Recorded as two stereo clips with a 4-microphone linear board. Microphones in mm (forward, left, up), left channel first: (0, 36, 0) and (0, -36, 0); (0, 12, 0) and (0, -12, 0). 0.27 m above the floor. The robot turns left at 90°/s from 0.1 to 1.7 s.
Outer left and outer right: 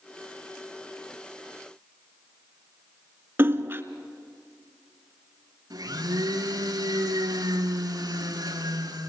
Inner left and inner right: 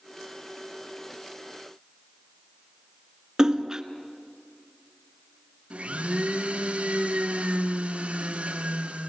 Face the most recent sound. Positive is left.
turn(degrees=-55)  # may be behind; listen again after turning